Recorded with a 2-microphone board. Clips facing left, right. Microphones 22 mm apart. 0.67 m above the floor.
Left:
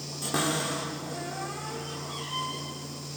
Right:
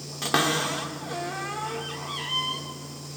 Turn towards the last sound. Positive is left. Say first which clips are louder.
# right 5 dB
turn(degrees=-60)  # may be behind; listen again after turning